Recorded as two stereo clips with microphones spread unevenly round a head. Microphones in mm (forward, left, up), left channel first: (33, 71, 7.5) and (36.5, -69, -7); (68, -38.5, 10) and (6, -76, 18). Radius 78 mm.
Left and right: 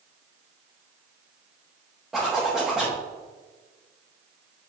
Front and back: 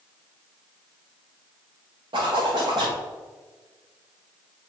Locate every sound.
2.1 s a zipper: 175° right, 1.5 m